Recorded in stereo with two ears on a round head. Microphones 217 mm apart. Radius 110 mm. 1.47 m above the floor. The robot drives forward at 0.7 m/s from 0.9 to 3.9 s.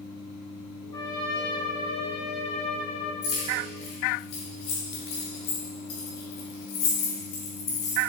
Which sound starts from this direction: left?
Keys jangling, at 3.2 s.